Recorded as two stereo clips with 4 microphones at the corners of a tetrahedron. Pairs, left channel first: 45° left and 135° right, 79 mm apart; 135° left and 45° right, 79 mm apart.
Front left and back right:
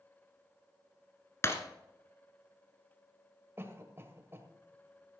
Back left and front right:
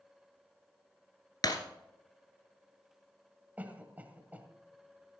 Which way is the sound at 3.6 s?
100° right.